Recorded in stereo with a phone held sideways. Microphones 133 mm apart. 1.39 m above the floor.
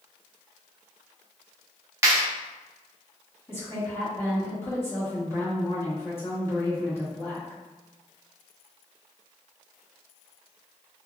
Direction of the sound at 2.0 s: 20° right (ahead or behind).